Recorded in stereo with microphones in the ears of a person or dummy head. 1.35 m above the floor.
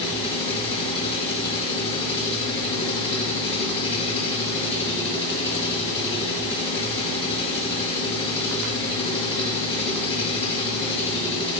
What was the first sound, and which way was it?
An engine running, 25° left (ahead or behind).